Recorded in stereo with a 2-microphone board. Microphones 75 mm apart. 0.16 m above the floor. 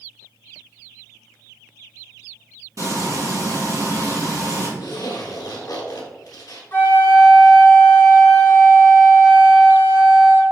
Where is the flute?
35° left (ahead or behind), 1.0 m.